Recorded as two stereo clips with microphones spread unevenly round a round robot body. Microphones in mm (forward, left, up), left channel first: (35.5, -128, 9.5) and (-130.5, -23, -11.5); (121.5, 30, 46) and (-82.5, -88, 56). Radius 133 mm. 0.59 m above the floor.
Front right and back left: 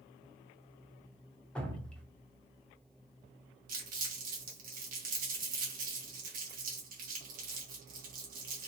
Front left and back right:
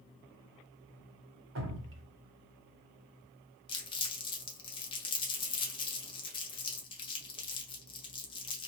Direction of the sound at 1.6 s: 120° right.